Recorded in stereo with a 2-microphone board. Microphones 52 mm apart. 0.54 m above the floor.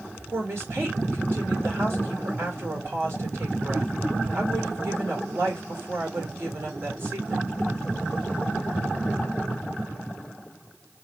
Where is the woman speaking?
55° right (ahead or behind), 1.8 m.